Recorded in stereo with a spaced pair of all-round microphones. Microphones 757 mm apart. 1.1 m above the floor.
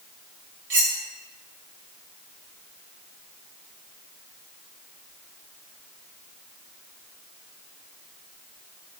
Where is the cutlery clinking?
45° right (ahead or behind), 1.0 m.